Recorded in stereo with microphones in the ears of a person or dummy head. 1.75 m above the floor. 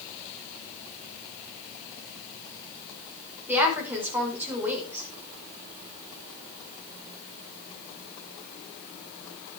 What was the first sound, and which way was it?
A woman speaking, 5° right (ahead or behind).